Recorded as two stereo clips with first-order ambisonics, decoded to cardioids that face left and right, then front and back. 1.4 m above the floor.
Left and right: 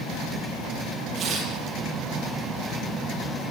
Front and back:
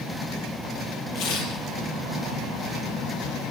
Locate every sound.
1.1 s tearing paper: 25° right, 5.5 m